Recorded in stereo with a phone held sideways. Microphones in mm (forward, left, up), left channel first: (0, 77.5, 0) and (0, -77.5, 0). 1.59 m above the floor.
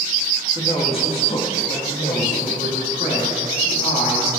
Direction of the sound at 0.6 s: 35° left (ahead or behind).